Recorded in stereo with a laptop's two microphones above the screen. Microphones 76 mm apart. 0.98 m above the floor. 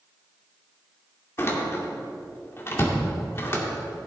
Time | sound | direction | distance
1.4 | a door slam | 35° left (ahead or behind) | 2 m